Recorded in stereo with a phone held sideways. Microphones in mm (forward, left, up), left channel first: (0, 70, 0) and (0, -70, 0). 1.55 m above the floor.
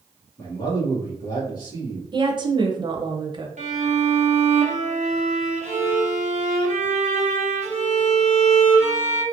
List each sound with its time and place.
0.4 s a man speaking: 30° left (ahead or behind), 1.4 m
2.1 s a woman speaking: 35° right (ahead or behind), 0.7 m
3.6 s a violin: 60° right (ahead or behind), 0.8 m